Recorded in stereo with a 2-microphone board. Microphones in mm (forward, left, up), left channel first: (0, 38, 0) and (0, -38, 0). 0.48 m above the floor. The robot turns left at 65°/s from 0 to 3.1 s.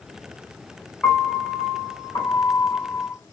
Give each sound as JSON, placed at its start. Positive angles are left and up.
{"t": 1.0, "sound": "a piano", "azimuth_deg": 165, "distance_m": 1.7}